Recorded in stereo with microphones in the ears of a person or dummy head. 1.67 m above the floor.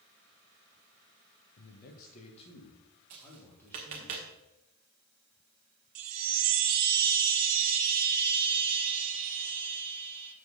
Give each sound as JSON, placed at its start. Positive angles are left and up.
{"t": 1.6, "sound": "a man speaking", "side_deg": 65, "distance_m": 1.4}
{"t": 3.1, "sound": "tapping", "side_deg": -35, "distance_m": 1.4}
{"t": 6.0, "sound": "a chime", "side_deg": -70, "distance_m": 1.0}